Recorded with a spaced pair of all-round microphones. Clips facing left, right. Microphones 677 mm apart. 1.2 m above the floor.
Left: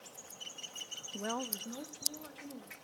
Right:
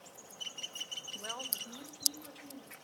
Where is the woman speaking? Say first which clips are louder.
Left 9 dB; 65° left (ahead or behind), 0.5 m; by 2.8 s 70° left (ahead or behind), 2.5 m.